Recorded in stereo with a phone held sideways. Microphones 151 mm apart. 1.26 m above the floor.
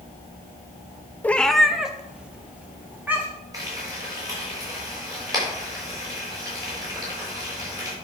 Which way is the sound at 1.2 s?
10° left (ahead or behind).